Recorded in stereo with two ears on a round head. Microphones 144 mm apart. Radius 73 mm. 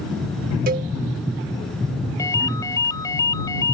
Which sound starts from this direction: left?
A ringtone, at 2.2 s.